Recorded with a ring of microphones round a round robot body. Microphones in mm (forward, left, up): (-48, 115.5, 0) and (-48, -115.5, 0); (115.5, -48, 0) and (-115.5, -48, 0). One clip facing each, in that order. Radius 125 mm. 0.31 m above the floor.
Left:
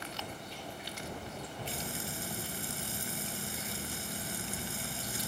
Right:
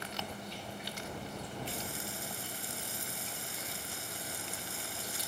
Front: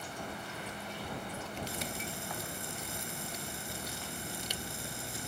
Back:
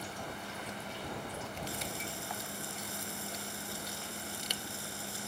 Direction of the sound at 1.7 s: 70° left.